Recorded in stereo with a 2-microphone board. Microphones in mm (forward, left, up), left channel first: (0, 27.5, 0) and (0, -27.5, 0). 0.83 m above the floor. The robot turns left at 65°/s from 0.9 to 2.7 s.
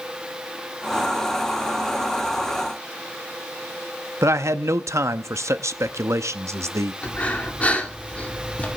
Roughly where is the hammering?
I don't hear hammering.